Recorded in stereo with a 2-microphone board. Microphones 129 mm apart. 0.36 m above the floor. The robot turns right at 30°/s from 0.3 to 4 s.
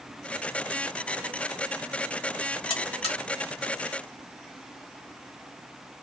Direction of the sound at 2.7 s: 45° left (ahead or behind).